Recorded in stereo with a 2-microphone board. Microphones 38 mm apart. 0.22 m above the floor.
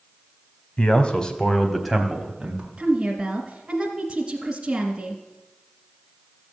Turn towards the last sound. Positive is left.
turn(degrees=-25)  # may be behind; listen again after turning